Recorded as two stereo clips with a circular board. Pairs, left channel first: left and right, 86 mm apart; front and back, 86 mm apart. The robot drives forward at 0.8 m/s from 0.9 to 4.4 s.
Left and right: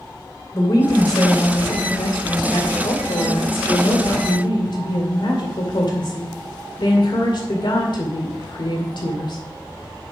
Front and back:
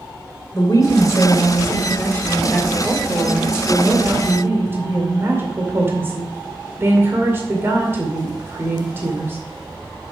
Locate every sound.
0.5 s a woman speaking: 50° left, 2.5 m; by 9.4 s 120° left, 2.5 m